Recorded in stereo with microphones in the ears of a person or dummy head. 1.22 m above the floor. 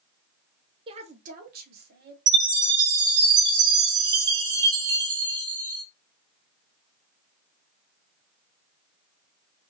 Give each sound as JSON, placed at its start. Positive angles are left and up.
{"t": 0.9, "sound": "a woman speaking", "side_deg": -30, "distance_m": 0.7}
{"t": 2.3, "sound": "a chime", "side_deg": -25, "distance_m": 1.4}